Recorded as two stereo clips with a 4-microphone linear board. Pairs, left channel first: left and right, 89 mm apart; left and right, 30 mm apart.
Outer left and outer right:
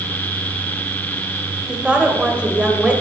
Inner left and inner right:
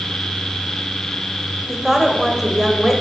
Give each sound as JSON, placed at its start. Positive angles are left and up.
{"t": 1.7, "sound": "a woman speaking", "side_deg": -10, "distance_m": 1.9}